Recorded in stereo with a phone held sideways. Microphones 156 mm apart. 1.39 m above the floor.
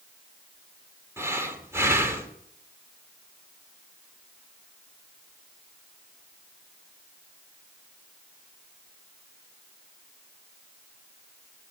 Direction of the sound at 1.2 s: 15° right (ahead or behind).